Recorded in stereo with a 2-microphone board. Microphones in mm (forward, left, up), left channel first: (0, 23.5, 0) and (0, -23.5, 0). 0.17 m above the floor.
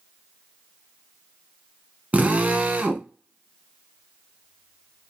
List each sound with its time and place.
2.1 s a drill: 35° right (ahead or behind), 0.7 m